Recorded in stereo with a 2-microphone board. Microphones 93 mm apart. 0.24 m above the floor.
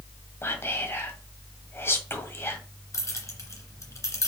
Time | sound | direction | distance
0.4 | whispering | 25° left (ahead or behind) | 1.7 m
2.9 | keys jangling | 35° left (ahead or behind) | 1.8 m